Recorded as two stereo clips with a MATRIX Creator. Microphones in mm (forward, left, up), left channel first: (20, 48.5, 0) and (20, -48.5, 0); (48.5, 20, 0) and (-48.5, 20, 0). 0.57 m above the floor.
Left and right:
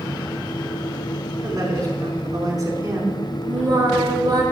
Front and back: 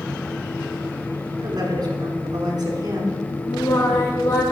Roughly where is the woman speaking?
Behind right.